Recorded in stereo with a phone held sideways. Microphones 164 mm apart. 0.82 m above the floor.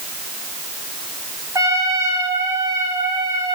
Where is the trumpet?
20° right (ahead or behind), 4.5 m.